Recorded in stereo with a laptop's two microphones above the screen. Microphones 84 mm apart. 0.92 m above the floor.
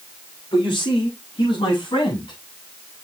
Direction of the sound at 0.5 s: 80° left.